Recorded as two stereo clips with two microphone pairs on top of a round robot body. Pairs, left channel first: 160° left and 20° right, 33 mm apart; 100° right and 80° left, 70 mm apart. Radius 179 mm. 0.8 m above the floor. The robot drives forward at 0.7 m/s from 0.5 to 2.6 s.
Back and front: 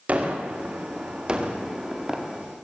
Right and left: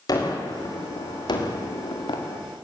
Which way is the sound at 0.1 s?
65° right.